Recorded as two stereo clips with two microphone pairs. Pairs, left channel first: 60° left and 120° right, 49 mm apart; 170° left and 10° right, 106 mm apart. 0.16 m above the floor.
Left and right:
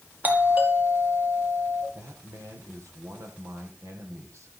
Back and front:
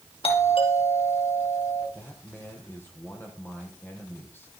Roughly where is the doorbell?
Behind.